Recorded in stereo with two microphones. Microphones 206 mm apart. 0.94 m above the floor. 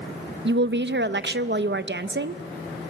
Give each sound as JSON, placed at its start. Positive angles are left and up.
{"t": 0.5, "sound": "a woman speaking", "side_deg": -60, "distance_m": 0.6}